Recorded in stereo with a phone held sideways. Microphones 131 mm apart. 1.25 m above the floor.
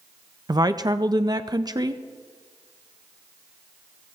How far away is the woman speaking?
About 0.5 m.